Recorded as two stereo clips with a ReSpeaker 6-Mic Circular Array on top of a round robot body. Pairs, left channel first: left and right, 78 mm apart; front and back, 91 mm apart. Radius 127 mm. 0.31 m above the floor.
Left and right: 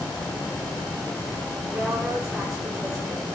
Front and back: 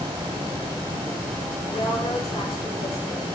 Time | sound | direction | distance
1.7 | a woman speaking | 5° right | 7.5 m